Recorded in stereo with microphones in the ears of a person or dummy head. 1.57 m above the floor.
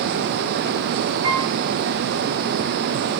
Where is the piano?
30° right (ahead or behind), 5.5 m.